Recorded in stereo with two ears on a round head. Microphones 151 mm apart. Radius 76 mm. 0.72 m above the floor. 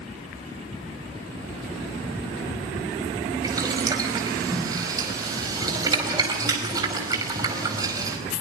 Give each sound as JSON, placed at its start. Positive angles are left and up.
{"t": 3.4, "sound": "boiling", "side_deg": -20, "distance_m": 4.5}